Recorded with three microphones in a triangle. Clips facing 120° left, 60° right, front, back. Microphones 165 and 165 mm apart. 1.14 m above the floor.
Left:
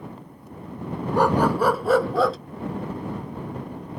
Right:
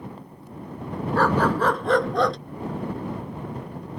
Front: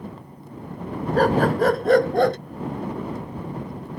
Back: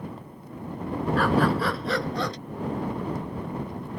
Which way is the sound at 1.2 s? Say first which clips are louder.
Left 2 dB, front 5 dB; 45° left.